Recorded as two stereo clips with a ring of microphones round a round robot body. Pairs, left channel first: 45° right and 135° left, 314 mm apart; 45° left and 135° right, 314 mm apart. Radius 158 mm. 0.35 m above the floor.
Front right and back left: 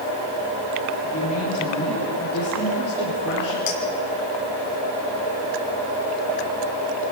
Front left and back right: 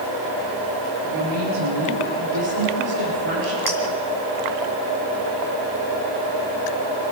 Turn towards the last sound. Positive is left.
turn(degrees=-80)